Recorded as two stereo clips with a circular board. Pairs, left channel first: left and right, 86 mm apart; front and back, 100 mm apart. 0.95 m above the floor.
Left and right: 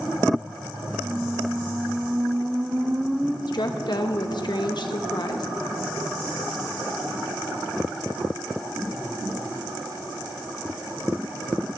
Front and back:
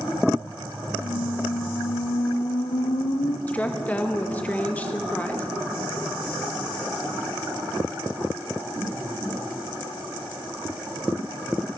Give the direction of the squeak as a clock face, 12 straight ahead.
12 o'clock.